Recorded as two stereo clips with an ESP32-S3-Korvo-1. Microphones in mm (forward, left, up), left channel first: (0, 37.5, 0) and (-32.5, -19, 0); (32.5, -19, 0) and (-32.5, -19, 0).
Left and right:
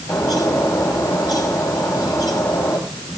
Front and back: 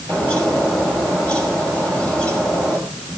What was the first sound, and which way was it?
A bird, 70° left.